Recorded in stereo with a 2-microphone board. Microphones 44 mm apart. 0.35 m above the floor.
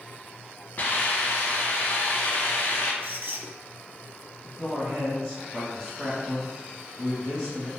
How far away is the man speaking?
About 1.3 m.